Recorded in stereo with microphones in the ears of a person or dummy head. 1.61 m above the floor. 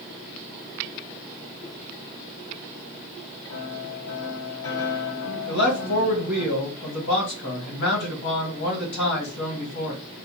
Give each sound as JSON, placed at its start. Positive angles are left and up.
{"t": 3.5, "sound": "a piano", "side_deg": 75, "distance_m": 1.1}
{"t": 5.5, "sound": "a man speaking", "side_deg": 45, "distance_m": 1.8}